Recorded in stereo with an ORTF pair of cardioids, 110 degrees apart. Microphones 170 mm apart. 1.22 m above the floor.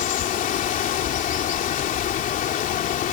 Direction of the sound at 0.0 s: 50° left.